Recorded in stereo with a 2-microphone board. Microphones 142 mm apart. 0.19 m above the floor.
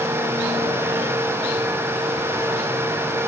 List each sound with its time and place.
Only background noise.